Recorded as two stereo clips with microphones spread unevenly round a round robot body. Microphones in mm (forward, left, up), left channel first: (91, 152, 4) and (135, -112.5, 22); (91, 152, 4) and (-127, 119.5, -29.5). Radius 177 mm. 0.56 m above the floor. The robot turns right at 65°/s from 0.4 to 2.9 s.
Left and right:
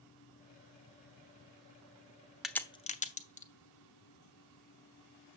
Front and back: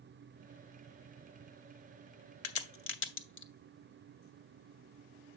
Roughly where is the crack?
Ahead.